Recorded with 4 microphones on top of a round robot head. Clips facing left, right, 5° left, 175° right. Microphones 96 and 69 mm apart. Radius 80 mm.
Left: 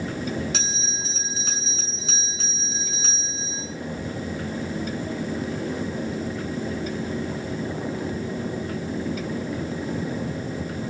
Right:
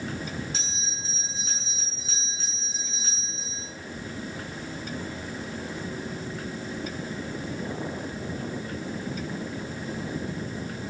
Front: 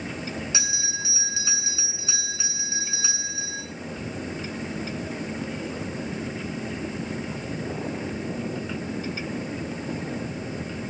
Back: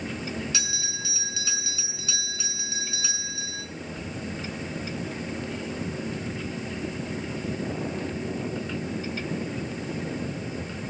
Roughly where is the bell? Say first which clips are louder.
Left 6 dB, front 2 dB; left.